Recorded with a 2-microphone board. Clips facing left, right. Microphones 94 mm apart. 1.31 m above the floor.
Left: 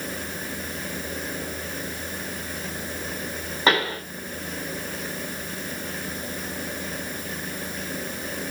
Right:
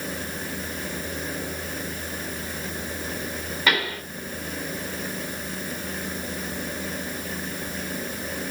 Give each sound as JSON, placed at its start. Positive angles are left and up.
{"t": 3.7, "sound": "a pop", "side_deg": 30, "distance_m": 3.5}